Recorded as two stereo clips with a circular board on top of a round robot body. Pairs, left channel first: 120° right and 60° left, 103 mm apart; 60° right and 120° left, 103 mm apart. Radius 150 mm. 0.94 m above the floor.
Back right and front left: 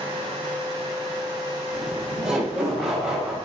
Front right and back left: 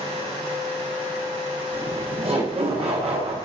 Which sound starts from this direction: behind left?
Laughter, at 1.7 s.